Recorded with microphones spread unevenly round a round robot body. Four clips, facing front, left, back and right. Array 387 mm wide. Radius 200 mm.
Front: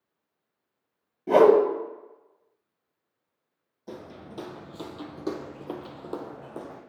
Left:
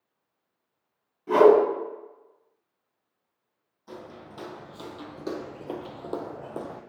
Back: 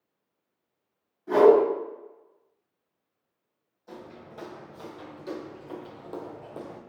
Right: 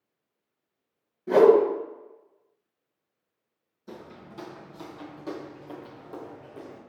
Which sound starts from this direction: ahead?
Footsteps, at 3.9 s.